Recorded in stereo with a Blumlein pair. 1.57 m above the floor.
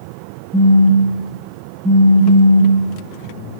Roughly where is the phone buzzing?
Ahead.